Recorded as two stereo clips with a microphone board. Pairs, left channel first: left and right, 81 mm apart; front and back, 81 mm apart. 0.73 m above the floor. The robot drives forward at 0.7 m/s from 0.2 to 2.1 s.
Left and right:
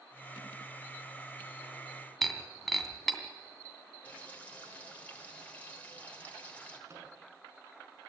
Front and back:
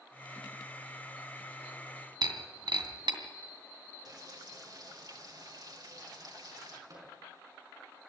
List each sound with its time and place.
2.2 s breaking glass: straight behind, 2.5 m
4.0 s frying: 160° left, 3.5 m
6.9 s a microwave: 140° right, 6 m